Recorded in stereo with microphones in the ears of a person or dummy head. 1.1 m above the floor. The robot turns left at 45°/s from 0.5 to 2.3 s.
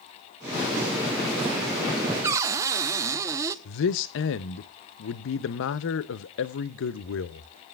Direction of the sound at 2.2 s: 15° right (ahead or behind).